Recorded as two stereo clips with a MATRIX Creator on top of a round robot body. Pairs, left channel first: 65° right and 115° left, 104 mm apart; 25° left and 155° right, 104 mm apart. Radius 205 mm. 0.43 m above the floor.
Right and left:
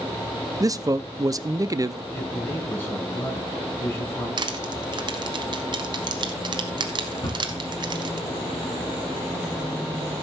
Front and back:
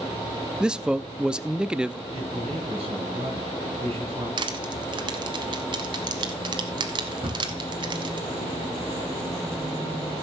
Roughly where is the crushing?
Behind.